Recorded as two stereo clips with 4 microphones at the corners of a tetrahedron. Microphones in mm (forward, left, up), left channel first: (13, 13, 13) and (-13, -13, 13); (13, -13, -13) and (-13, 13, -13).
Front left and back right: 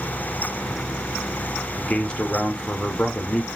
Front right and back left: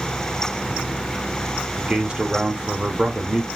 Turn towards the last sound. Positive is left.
turn(degrees=90)